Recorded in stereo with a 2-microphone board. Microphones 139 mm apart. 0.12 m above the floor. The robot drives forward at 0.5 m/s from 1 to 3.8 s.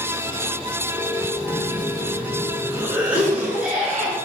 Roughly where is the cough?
Centre.